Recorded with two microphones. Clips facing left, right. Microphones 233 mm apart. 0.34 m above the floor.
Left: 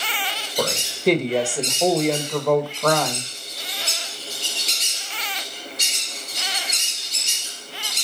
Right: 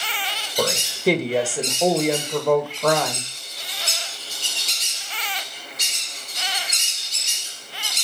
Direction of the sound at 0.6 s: Centre (ahead or behind).